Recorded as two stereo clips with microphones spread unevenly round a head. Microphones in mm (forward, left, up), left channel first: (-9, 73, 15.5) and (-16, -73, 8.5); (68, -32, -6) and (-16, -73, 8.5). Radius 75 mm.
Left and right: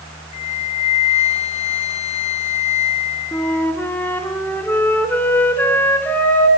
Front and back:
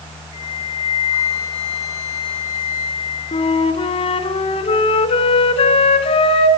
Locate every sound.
0.3 s a flute: 135° left, 1.6 m
3.3 s a flute: 10° left, 2.5 m